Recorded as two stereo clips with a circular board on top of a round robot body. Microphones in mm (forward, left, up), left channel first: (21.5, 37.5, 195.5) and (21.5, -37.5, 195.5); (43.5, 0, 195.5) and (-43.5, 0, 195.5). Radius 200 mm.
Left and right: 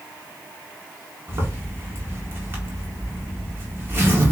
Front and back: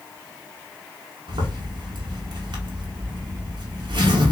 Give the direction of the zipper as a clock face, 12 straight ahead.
5 o'clock.